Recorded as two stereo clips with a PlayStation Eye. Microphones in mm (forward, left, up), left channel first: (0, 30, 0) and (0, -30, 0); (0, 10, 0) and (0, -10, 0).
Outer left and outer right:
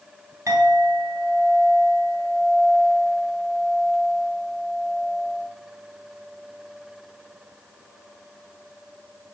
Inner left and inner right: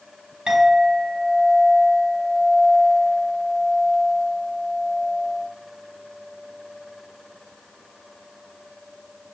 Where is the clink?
55° right (ahead or behind), 1.6 m.